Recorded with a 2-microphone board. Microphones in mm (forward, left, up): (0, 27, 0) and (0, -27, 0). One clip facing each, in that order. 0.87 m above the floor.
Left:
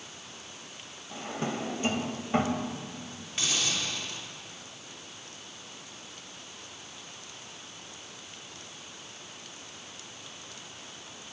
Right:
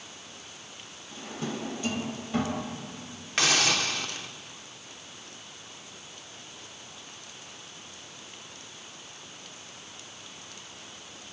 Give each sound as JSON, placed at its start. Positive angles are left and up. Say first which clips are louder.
{"t": 1.1, "sound": "a drawer", "louder": "left 2 dB", "side_deg": 35, "distance_m": 3.0}
{"t": 3.4, "sound": "a hiss", "louder": "right 7 dB", "side_deg": -85, "distance_m": 1.5}